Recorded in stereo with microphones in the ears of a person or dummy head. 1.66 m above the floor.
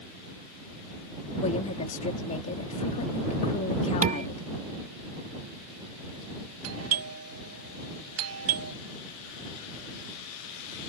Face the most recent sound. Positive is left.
turn(degrees=-80)